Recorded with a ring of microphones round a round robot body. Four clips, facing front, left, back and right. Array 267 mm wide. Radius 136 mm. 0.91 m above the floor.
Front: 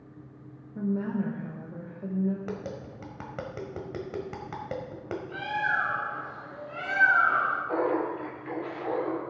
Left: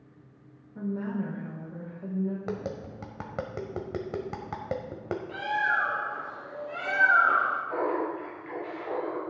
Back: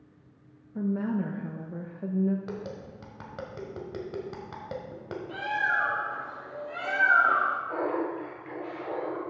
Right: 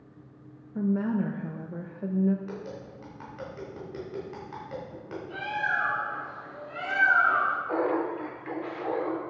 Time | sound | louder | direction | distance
0.8 | a woman speaking | right 5 dB, back 1 dB | 115° right | 1.0 m
2.5 | tapping | left 4 dB, front 1 dB | 80° left | 1.2 m
5.3 | a bird | left 2 dB, back 1 dB | 140° left | 4 m
7.7 | laughter | right 2 dB, front 2 dB | 55° right | 3.5 m